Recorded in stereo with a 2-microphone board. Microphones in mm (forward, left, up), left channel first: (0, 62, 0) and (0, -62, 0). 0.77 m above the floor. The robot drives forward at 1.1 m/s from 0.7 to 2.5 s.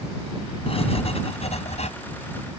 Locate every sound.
0.7 s writing: 55° left (ahead or behind); by 1.9 s 70° left (ahead or behind)